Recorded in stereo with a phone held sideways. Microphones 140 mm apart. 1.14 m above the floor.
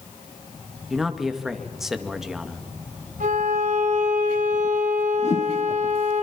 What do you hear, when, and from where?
0.9 s a man speaking: 5° right (ahead or behind), 2.0 m
3.2 s a violin: 70° right (ahead or behind), 6.5 m
5.2 s a whoosh: 55° left (ahead or behind), 4.5 m